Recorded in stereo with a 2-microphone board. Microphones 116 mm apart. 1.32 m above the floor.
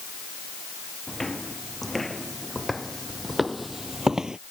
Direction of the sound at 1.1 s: Centre (ahead or behind).